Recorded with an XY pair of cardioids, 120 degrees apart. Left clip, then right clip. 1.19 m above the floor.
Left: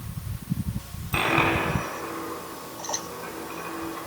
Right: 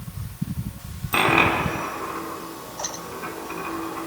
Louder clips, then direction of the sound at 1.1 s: Right 4 dB; 35° right.